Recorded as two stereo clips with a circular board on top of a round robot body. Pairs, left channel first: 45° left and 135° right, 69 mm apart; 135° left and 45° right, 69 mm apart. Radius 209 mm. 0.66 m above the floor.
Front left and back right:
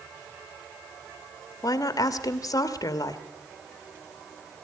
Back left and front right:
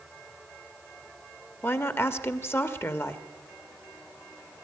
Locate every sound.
1.6 s a woman speaking: 80° left, 1.6 m